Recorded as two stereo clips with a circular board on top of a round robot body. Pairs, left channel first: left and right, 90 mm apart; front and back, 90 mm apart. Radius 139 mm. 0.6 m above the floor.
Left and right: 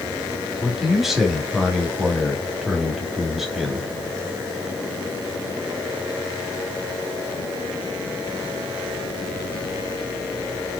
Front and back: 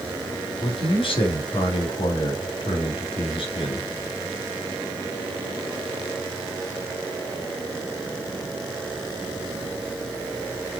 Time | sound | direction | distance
0.6 | a man speaking | 5° right | 3 m